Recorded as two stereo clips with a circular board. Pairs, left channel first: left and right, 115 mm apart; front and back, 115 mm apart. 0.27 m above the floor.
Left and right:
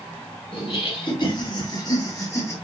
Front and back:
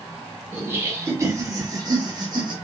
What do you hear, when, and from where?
0.5 s laughter: 115° left, 2 m; by 2.5 s 150° left, 2 m